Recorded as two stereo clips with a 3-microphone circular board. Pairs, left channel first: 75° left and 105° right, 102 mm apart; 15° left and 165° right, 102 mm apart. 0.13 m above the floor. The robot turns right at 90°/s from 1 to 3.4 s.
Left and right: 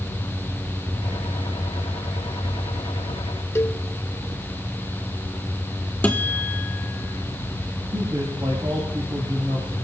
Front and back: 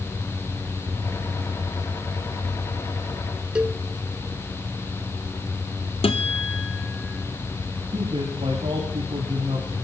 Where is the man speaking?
145° right, 9.5 m.